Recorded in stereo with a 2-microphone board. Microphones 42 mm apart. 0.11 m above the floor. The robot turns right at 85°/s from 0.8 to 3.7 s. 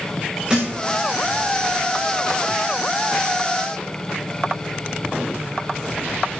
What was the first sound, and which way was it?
A thud, 20° right (ahead or behind).